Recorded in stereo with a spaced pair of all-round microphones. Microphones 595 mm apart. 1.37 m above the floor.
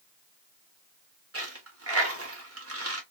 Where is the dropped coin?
25° right (ahead or behind), 0.8 m.